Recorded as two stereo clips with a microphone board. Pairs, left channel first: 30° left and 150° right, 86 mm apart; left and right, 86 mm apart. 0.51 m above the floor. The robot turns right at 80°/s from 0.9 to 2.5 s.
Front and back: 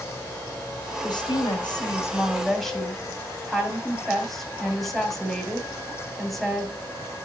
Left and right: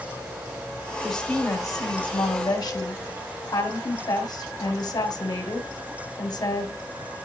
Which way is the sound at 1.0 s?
Straight ahead.